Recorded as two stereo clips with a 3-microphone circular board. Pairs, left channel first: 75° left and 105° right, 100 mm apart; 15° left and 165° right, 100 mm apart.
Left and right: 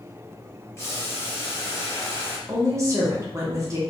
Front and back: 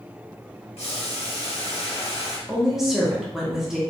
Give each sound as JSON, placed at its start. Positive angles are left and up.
{"t": 0.8, "sound": "boiling", "azimuth_deg": 10, "distance_m": 0.9}
{"t": 2.5, "sound": "a woman speaking", "azimuth_deg": -80, "distance_m": 0.8}